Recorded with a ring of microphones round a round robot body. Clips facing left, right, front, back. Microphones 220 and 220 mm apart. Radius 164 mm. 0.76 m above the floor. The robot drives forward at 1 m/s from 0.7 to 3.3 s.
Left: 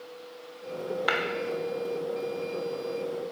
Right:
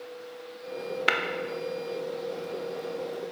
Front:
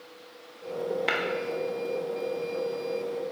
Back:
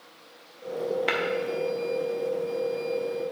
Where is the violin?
No violin in this recording.